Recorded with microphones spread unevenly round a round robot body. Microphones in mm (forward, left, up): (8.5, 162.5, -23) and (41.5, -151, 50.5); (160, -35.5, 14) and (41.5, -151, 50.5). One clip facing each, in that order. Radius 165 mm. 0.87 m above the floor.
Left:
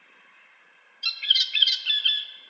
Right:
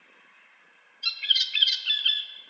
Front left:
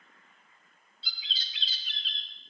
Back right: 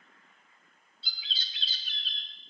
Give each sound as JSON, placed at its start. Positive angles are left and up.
{"t": 1.0, "sound": "a bird", "azimuth_deg": 90, "distance_m": 0.9}